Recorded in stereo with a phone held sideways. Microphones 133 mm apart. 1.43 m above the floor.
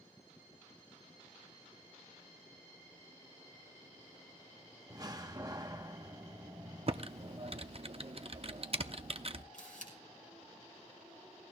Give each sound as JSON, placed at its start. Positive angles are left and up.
{"t": 4.9, "sound": "a door slam", "side_deg": -30, "distance_m": 1.1}
{"t": 6.9, "sound": "typing on a keyboard", "side_deg": -50, "distance_m": 0.6}
{"t": 9.5, "sound": "a camera shutter", "side_deg": 80, "distance_m": 6.0}